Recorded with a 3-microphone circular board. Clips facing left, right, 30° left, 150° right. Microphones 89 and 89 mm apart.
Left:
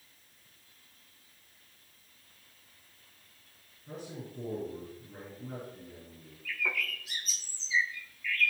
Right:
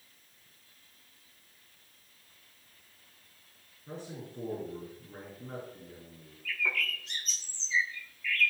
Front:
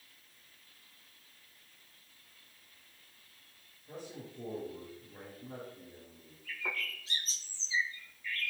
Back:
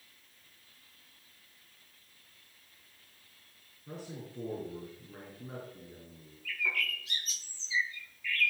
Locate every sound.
3.9 s a man speaking: 145° right, 5.5 m
6.5 s a bird: 15° left, 0.9 m